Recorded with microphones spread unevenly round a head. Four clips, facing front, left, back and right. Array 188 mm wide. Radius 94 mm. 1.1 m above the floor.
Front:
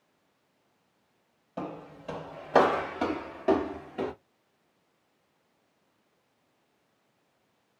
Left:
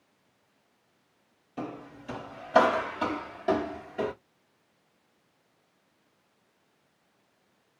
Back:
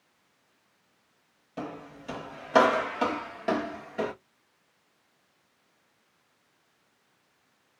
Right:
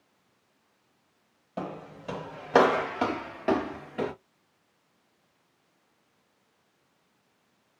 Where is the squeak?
No squeak in this recording.